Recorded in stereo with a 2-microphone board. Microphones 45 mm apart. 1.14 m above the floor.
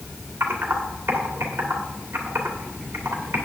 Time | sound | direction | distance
0.4 | typing on a keyboard | 65° right (ahead or behind) | 2 m